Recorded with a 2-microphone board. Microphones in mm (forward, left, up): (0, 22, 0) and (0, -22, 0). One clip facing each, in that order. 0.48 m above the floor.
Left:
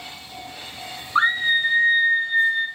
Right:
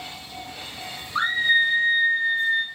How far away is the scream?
About 0.9 m.